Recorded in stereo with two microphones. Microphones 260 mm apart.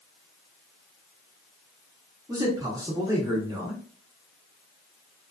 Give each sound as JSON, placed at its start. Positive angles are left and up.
{"t": 2.3, "sound": "a man speaking", "side_deg": -15, "distance_m": 0.7}